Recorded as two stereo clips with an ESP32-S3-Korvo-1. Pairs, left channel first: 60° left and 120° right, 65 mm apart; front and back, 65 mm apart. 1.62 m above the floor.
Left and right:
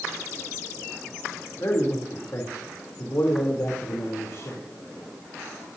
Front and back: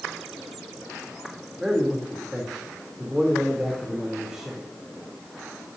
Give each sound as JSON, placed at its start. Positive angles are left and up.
{"t": 1.6, "sound": "a man speaking", "azimuth_deg": 100, "distance_m": 3.5}